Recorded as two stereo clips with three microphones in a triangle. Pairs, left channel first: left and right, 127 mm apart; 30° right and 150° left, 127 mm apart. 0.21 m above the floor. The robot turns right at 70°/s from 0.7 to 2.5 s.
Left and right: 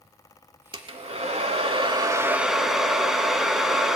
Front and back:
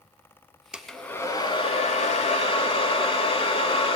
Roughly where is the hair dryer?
Behind right.